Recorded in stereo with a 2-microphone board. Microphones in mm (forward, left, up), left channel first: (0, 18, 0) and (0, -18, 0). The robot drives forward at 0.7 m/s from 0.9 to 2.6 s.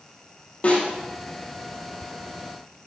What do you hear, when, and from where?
0.6 s a snare drum: 35° left (ahead or behind), 4 m